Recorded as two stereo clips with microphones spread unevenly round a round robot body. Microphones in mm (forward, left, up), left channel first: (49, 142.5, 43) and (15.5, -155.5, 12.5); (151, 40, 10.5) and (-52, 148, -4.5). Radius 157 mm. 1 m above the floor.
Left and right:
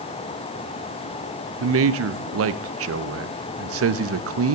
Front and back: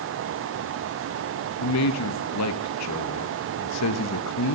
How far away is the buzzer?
I don't hear a buzzer.